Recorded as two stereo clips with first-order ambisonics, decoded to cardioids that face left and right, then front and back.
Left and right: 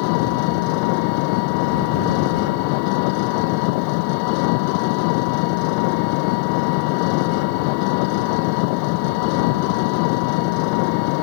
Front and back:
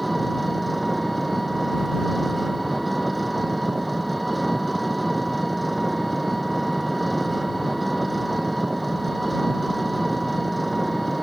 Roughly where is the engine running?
Left.